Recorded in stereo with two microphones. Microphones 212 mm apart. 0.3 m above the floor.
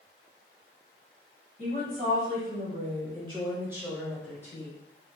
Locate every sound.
1.6 s a woman speaking: 45° right (ahead or behind), 1.9 m; by 4.7 s 20° left (ahead or behind), 1.1 m